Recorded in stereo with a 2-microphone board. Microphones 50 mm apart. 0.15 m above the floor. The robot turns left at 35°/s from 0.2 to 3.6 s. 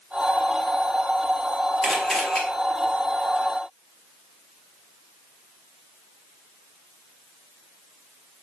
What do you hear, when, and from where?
1.8 s a camera shutter: 5° left (ahead or behind), 4 m; by 2.4 s 25° left (ahead or behind), 4 m